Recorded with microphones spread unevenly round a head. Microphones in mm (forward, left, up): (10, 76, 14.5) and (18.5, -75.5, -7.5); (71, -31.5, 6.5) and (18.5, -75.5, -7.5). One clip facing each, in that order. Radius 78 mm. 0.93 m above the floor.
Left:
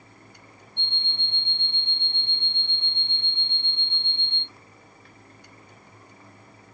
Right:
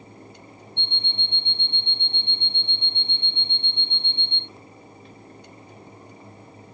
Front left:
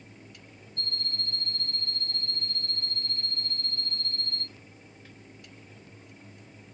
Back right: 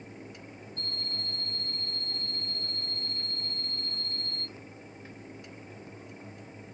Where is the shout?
I don't hear a shout.